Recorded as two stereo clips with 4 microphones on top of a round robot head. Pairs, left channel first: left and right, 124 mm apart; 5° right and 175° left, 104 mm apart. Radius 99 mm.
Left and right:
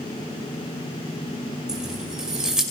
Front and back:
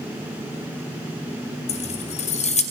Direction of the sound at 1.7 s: 5° right.